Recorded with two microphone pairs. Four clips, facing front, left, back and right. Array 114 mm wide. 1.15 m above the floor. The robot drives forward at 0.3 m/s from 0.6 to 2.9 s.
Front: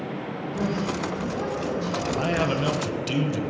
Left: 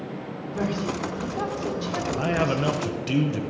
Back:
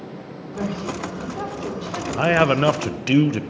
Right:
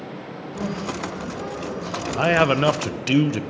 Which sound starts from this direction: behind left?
A woman speaking, at 0.5 s.